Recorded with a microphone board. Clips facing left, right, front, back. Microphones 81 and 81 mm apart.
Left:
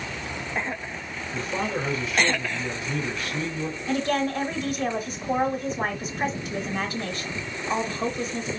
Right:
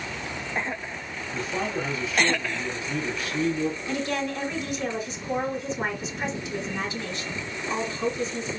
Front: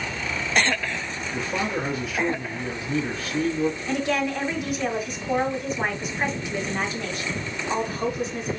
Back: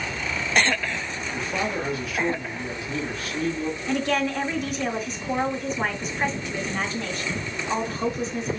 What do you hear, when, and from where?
1.3 s a man speaking: 50° left, 3 m
3.9 s a woman speaking: 80° left, 1.6 m